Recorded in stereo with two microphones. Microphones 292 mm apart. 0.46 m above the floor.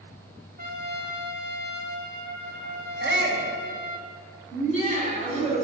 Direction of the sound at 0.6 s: 30° right (ahead or behind).